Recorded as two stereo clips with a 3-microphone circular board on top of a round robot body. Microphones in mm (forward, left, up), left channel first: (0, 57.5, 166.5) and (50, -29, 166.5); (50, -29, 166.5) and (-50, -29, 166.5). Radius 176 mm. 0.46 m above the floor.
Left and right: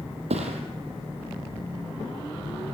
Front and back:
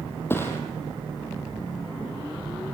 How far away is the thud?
About 4 m.